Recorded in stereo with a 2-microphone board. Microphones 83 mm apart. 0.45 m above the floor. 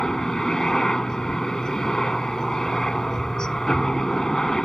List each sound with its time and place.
0.0 s a helicopter: 10° left (ahead or behind)